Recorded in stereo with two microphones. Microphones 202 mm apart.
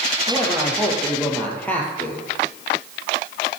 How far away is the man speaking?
About 3.5 m.